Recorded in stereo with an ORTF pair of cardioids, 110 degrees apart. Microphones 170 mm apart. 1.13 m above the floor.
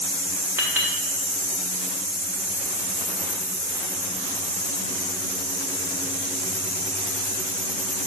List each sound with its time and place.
0.6 s a clink: 15° right, 2.5 m